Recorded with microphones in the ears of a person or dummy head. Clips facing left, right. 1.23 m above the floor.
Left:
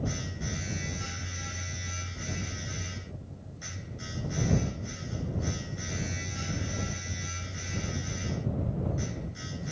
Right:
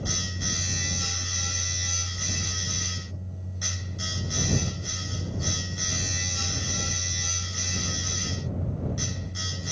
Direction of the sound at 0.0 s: 75° right (ahead or behind).